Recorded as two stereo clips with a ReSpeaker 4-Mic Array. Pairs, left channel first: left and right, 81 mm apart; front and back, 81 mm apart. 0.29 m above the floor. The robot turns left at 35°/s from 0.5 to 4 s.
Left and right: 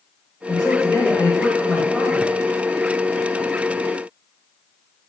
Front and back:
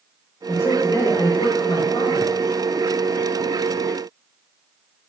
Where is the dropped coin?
I don't hear a dropped coin.